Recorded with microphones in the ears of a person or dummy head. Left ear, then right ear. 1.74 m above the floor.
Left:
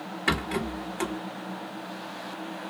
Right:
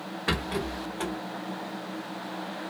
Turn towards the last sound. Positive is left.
turn(degrees=45)  # may be behind; listen again after turning